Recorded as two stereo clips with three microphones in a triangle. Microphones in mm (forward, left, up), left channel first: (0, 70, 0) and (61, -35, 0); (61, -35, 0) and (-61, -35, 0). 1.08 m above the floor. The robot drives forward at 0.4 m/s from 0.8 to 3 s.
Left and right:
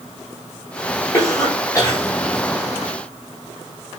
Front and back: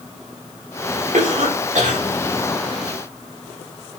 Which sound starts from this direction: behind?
A cough, at 1.1 s.